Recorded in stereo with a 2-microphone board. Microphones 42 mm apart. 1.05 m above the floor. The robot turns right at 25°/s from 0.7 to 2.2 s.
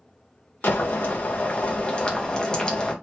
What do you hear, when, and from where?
0.6 s boiling: 120° left, 0.7 m; by 2.9 s 160° left, 0.7 m